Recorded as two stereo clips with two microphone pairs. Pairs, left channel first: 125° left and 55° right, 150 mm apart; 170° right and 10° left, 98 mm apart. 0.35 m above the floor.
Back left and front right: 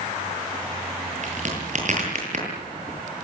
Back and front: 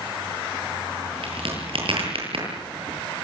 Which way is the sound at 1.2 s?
15° right.